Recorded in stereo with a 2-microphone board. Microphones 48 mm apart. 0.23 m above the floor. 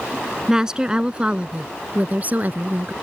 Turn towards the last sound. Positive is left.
turn(degrees=-45)  # may be behind; listen again after turning